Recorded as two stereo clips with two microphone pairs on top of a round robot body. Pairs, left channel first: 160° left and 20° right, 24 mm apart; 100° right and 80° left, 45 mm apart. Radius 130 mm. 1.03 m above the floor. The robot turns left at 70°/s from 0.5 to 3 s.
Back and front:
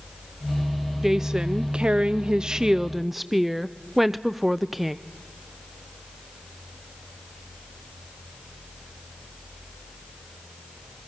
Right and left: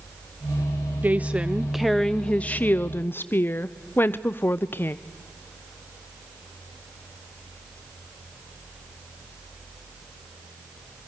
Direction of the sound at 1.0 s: 50° left.